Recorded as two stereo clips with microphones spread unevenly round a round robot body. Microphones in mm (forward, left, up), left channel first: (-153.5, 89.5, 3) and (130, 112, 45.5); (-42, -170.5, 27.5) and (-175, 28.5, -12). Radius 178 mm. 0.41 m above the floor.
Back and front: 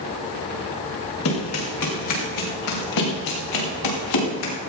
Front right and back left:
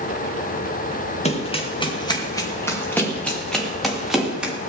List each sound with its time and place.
1.2 s running footsteps: 120° right, 4.5 m; by 4.5 s 150° right, 6.5 m